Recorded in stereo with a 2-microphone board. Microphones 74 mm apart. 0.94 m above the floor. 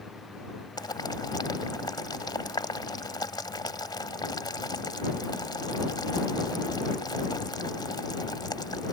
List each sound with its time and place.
0.8 s boiling: 80° left